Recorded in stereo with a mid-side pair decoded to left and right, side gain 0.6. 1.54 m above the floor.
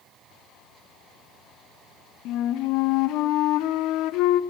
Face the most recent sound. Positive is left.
turn(degrees=70)